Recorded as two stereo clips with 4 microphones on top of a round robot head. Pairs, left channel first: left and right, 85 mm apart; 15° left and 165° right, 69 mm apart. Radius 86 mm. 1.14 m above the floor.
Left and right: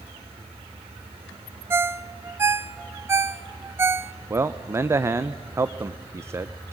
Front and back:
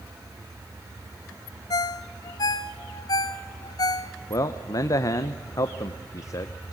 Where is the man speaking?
30° right, 0.7 m.